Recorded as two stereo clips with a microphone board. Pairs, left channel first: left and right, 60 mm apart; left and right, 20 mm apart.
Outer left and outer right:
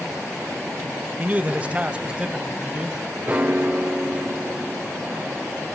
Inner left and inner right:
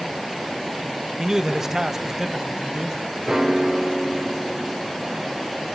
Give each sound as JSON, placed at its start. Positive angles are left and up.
{"t": 1.2, "sound": "a man speaking", "side_deg": -25, "distance_m": 1.1}
{"t": 3.3, "sound": "a piano", "side_deg": -25, "distance_m": 1.4}